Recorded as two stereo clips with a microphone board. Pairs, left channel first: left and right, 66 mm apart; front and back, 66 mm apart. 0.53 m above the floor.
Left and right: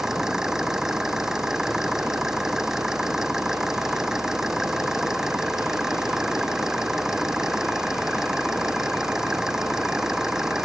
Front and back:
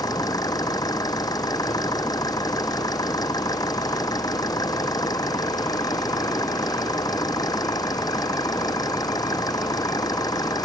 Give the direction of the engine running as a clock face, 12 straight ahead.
12 o'clock.